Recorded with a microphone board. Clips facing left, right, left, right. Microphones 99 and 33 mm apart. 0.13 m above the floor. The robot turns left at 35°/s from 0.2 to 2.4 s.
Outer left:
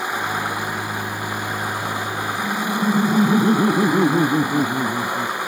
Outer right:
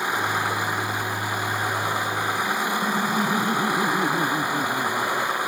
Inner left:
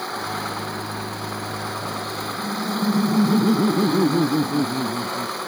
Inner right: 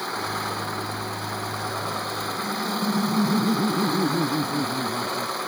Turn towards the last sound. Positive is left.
turn(degrees=40)  # may be behind; listen again after turning